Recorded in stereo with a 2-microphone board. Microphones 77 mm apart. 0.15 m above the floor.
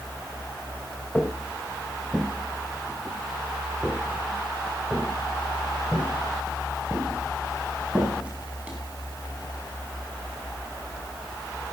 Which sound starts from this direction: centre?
Footsteps, at 1.1 s.